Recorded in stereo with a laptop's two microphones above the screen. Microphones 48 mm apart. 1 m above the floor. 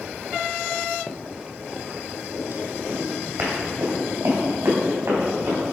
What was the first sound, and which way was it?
Running footsteps, 10° left (ahead or behind).